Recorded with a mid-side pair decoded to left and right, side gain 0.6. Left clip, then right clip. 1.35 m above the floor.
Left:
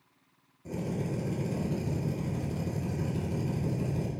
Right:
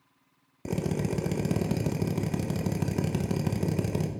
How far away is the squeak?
No squeak in this recording.